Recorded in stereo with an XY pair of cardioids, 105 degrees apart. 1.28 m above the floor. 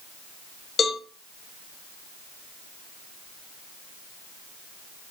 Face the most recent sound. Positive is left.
turn(degrees=45)